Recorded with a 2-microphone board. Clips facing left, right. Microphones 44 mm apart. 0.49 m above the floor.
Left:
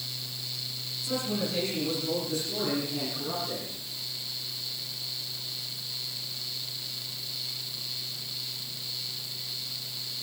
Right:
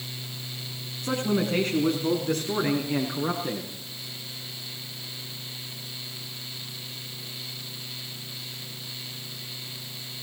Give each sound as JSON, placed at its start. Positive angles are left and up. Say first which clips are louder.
{"t": 1.0, "sound": "a man speaking", "louder": "right 6 dB", "side_deg": -55, "distance_m": 6.0}